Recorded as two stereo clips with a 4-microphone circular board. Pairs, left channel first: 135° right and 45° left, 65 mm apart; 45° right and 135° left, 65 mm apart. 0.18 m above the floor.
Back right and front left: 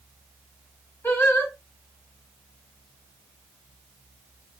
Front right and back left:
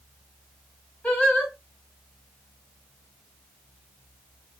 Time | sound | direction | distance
1.0 | singing | 110° right | 2 m